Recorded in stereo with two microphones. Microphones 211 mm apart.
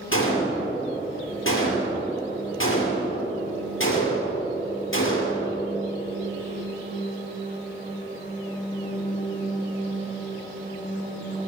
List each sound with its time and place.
0.1 s a gunshot: 70° left (ahead or behind), 5 m